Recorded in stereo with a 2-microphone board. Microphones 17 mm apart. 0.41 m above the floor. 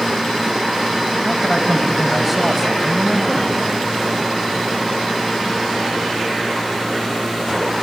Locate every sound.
1.2 s a man speaking: 15° left (ahead or behind), 2.5 m; by 3.6 s 30° right (ahead or behind), 2.5 m